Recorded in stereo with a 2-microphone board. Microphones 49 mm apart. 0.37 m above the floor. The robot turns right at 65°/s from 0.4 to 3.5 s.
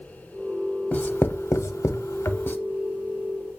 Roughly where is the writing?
Left.